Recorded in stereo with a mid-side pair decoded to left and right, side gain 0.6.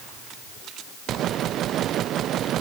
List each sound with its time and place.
Only background noise.